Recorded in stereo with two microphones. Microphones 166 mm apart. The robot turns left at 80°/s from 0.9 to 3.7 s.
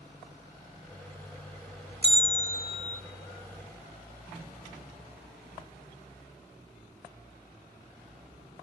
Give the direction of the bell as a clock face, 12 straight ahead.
3 o'clock.